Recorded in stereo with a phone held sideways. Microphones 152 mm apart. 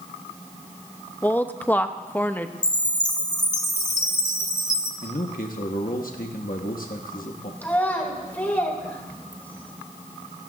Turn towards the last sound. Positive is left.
turn(degrees=10)  # may be behind; listen again after turning